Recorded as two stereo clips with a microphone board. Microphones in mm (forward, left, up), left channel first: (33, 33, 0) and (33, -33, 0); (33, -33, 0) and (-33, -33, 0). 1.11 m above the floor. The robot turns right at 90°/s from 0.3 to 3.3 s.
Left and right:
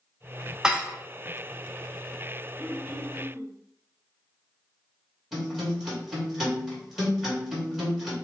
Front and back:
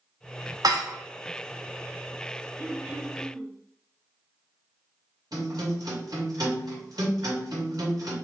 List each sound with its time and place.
0.6 s dishes clattering: 170° right, 0.6 m; by 1.0 s 140° right, 0.6 m
2.6 s throat clearing: 155° right, 1.2 m; by 3.5 s 90° right, 1.2 m
5.3 s a guitar: 170° right, 2.5 m